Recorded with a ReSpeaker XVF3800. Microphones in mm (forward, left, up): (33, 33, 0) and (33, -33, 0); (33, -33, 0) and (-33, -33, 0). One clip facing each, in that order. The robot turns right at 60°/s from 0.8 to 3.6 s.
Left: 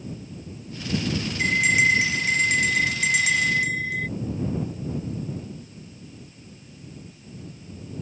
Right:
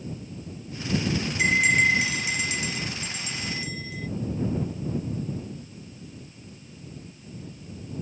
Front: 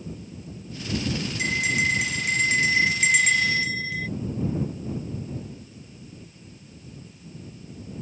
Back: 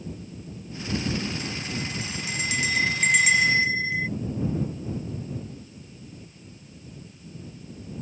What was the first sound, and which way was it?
A bell, 15° right.